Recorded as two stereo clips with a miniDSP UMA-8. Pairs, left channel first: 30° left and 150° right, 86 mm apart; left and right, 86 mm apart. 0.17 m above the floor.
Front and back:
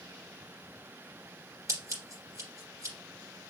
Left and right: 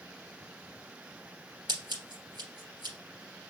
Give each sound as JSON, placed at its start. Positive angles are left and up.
{"t": 1.7, "sound": "scissors", "azimuth_deg": -105, "distance_m": 3.0}